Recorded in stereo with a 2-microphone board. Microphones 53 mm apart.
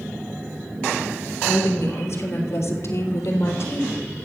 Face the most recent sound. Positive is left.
turn(degrees=60)  # may be behind; listen again after turning